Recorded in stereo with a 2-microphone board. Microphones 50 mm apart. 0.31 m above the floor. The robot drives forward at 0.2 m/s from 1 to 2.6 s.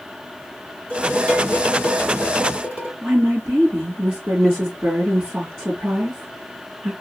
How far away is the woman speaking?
About 3 m.